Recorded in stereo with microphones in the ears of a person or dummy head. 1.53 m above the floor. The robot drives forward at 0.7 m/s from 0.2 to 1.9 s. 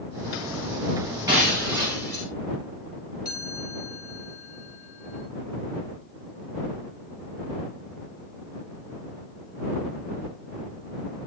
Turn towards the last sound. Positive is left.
turn(degrees=-10)  # may be behind; listen again after turning